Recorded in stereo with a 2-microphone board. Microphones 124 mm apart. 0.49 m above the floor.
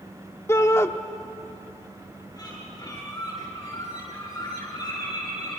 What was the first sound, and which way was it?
A shout, 20° left (ahead or behind).